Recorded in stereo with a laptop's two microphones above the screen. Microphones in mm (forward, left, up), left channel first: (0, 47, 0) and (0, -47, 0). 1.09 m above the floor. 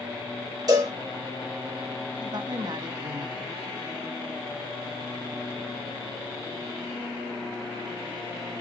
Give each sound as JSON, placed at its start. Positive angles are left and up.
{"t": 0.7, "sound": "a cowbell", "side_deg": -40, "distance_m": 3.0}
{"t": 2.2, "sound": "a woman speaking", "side_deg": -50, "distance_m": 1.5}